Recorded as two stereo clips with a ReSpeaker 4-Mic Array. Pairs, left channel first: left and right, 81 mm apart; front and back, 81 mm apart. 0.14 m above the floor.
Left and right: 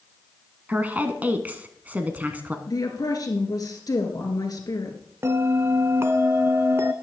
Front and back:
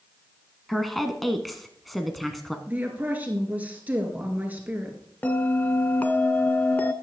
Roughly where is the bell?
Ahead right.